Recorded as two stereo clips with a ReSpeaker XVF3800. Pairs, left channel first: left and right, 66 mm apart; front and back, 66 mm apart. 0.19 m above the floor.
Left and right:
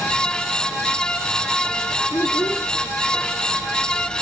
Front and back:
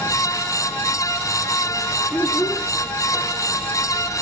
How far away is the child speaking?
About 1.3 m.